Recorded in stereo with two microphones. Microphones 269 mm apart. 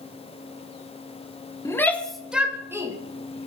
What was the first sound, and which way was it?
A shout, 10° left (ahead or behind).